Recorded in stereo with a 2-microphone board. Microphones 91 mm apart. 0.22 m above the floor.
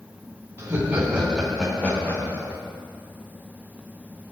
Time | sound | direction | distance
0.6 | laughter | 25° right (ahead or behind) | 1.5 m